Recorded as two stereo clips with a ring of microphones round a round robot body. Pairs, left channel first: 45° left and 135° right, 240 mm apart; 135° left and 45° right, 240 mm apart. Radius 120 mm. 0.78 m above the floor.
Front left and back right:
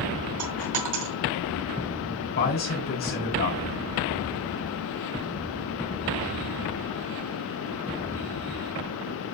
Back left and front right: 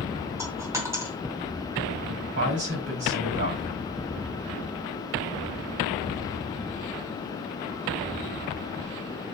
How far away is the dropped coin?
About 2 m.